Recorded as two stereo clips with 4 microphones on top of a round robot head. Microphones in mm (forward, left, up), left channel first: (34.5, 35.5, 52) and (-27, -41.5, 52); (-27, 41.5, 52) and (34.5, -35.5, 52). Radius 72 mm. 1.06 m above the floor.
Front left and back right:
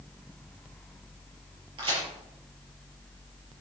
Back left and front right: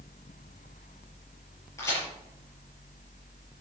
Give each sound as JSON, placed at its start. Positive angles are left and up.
{"t": 1.8, "sound": "a crack", "azimuth_deg": -170, "distance_m": 6.0}